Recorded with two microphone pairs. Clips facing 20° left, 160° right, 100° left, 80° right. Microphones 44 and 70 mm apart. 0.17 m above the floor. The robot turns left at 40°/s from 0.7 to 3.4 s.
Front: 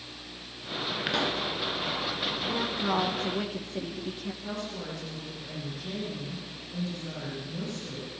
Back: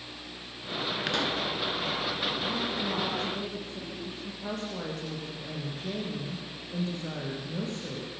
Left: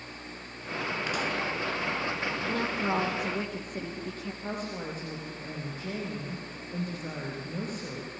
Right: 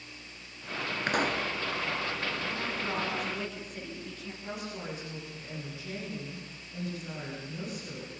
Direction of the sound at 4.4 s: 145° left.